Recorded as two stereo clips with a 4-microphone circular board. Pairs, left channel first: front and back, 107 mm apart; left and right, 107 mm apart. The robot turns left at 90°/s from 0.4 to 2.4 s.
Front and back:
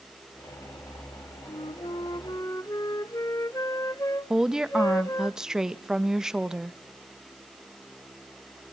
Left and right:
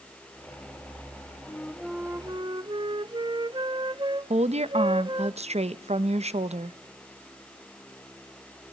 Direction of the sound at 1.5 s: 30° left.